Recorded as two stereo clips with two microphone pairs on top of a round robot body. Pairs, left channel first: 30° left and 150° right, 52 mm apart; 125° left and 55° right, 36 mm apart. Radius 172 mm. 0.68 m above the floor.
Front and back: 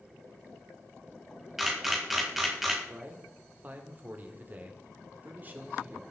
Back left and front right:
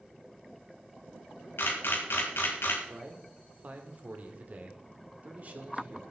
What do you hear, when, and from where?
1.6 s a camera shutter: 125° left, 2.5 m
2.9 s a man speaking: 100° right, 2 m